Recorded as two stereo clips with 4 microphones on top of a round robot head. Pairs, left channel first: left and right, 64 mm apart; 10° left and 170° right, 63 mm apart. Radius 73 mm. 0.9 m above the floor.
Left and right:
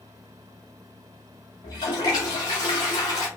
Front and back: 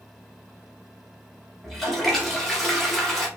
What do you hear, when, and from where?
1.6 s a toilet flushing: 95° left, 0.6 m